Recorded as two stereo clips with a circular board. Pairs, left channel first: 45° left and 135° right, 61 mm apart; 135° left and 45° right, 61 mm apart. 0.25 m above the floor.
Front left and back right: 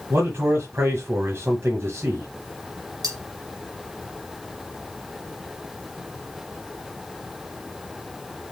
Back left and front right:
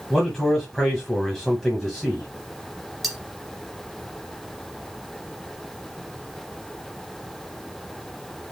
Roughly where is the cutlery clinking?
Behind right.